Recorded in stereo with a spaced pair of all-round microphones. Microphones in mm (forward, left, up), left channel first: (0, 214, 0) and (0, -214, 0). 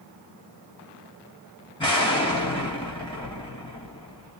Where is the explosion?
10° left (ahead or behind), 2 m.